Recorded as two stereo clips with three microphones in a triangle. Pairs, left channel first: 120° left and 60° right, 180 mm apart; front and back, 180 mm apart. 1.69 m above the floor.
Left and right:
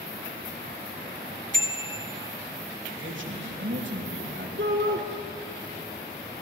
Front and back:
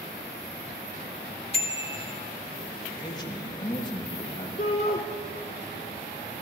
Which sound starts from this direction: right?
A man speaking, at 2.9 s.